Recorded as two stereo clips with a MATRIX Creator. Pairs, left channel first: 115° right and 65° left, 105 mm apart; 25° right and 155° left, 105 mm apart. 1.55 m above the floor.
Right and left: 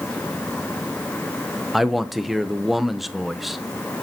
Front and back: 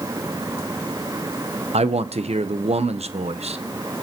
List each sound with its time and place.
1.7 s a man speaking: 155° left, 0.8 m